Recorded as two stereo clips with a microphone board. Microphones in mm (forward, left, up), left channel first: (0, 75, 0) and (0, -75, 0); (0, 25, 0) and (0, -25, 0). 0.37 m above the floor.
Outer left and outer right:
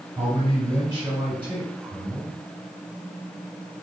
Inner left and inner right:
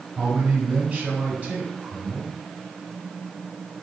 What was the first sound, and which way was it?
A man speaking, 15° right (ahead or behind).